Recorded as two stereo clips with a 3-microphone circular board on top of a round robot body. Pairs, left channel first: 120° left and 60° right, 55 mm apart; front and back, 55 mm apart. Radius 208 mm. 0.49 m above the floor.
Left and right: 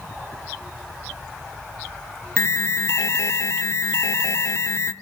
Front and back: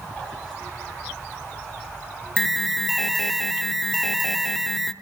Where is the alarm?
85° left, 1.2 m.